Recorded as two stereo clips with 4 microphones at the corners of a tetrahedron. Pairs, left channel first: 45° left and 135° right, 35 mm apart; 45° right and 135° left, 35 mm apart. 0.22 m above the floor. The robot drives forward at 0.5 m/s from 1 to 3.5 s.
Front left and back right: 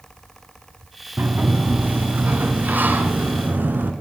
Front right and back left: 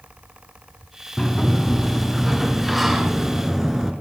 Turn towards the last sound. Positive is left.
turn(degrees=-145)